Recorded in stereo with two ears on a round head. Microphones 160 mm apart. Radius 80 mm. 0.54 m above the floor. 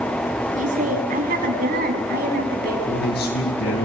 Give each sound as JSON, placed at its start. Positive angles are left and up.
{"t": 0.6, "sound": "a woman speaking", "side_deg": -45, "distance_m": 5.5}
{"t": 2.9, "sound": "a man speaking", "side_deg": 65, "distance_m": 8.0}